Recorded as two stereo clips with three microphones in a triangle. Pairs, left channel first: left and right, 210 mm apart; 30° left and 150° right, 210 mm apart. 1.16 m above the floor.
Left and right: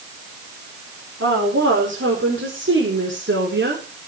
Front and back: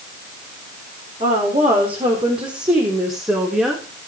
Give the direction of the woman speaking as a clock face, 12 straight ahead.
3 o'clock.